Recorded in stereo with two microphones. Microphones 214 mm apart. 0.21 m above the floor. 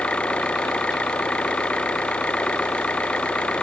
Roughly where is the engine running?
Centre.